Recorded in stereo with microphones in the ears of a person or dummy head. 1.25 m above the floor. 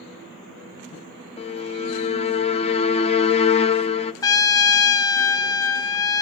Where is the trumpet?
20° left (ahead or behind), 0.5 m.